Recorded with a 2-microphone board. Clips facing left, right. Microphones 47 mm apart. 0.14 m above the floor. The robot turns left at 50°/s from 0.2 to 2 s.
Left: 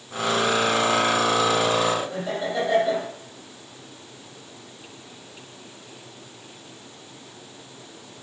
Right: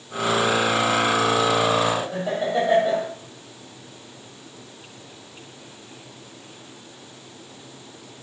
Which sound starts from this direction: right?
Laughter, at 2.0 s.